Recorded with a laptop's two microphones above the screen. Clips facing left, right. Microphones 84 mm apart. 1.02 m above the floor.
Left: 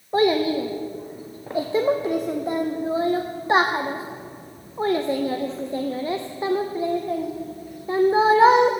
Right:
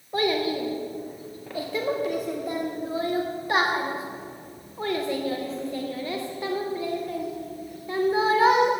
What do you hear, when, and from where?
0.1 s a child speaking: 25° left (ahead or behind), 0.6 m